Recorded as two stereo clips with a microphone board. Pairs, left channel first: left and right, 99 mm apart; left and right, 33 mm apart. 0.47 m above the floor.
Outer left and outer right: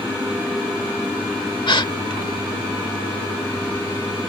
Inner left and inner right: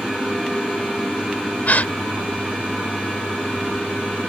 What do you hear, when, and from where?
1.7 s a gasp: 55° left (ahead or behind)